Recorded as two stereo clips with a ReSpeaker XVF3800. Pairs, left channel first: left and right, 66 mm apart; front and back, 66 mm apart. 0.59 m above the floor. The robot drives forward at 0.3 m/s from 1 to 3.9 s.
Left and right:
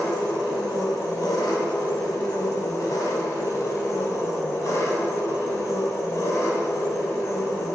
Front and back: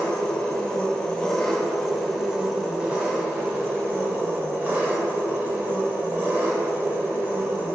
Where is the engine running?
80° left, 1.0 m; by 7.8 s 125° left, 1.2 m.